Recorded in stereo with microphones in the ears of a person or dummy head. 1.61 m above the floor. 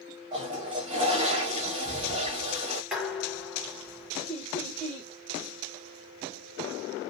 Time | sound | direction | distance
0.3 | a toilet flushing | 30° right (ahead or behind) | 0.8 m
2.9 | dishes clattering | 5° right (ahead or behind) | 1.0 m
4.3 | laughter | 10° left (ahead or behind) | 1.3 m